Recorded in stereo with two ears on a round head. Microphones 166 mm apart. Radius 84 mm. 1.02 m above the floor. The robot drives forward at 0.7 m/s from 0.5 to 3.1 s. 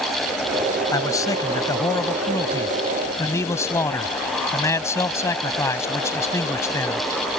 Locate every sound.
0.9 s a man speaking: 20° left (ahead or behind); by 7.0 s 15° left (ahead or behind)